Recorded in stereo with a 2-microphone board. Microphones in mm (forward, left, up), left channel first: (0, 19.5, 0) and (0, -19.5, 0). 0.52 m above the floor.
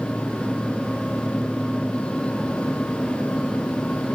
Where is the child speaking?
I don't hear a child speaking.